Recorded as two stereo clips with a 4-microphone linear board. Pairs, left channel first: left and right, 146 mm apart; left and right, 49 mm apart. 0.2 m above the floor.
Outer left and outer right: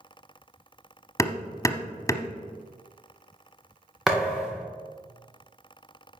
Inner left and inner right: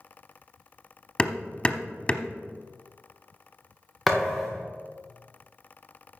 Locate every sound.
1.2 s hammering: 20° left (ahead or behind), 0.7 m
4.1 s a thud: centre (ahead or behind), 2 m